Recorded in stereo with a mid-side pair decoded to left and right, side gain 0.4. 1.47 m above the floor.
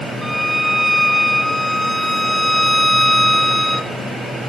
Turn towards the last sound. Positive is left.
turn(degrees=5)